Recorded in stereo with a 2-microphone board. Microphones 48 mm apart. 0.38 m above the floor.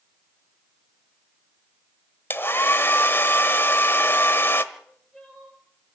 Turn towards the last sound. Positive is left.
turn(degrees=10)  # may be behind; listen again after turning